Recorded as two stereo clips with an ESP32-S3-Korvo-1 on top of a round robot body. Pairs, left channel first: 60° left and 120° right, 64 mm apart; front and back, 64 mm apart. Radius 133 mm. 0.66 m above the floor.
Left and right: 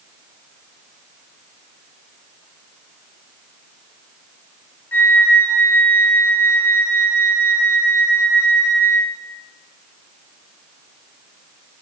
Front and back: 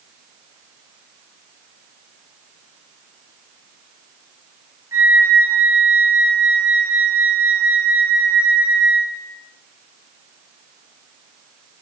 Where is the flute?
120° left, 1.1 m.